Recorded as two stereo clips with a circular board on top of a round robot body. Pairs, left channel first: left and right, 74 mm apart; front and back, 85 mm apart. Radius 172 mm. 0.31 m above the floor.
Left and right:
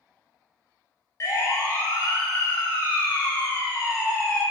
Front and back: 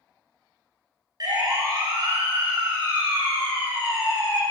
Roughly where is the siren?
Behind left.